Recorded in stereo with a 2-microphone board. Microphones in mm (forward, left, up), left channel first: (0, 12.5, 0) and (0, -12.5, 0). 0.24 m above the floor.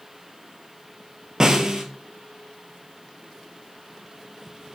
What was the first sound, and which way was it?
A snare drum, 25° right (ahead or behind).